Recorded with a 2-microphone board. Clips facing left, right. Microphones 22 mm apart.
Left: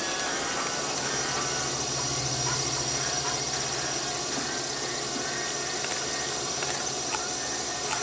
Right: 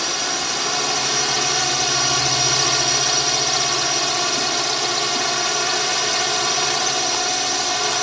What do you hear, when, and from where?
0.0 s a drone: 55° right (ahead or behind)